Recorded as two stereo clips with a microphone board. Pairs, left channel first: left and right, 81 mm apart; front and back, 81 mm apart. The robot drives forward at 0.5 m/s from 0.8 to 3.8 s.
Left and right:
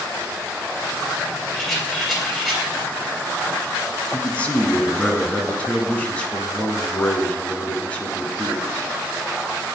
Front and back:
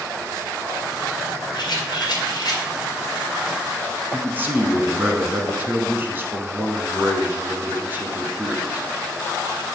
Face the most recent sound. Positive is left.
turn(degrees=145)